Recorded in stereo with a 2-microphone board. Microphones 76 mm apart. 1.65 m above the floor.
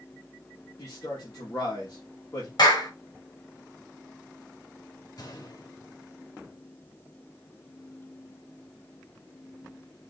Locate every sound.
0.8 s a man speaking: 60° left (ahead or behind), 2.5 m
2.6 s a clap: 75° left (ahead or behind), 4.5 m
5.2 s a gunshot: 70° left (ahead or behind), 3.5 m